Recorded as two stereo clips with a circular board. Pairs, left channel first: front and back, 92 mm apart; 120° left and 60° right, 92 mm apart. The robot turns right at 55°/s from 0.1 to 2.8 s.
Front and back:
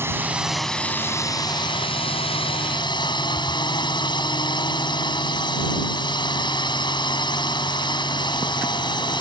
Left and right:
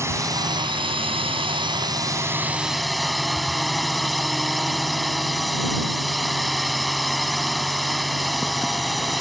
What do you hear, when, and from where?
0.0 s a drone: 120° right; by 9.2 s 30° left